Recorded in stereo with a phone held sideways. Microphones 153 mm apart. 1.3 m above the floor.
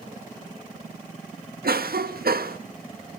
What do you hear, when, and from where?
1.6 s a cough: 85° right, 1.4 m